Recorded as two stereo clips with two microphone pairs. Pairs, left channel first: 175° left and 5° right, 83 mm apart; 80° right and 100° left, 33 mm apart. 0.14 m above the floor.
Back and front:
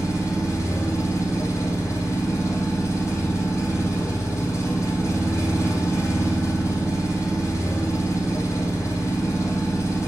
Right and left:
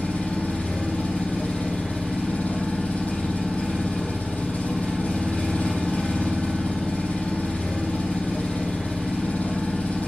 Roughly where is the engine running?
Behind right.